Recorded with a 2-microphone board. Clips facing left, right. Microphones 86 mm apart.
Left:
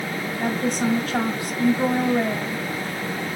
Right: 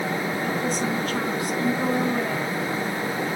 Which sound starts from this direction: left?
A woman speaking, at 0.4 s.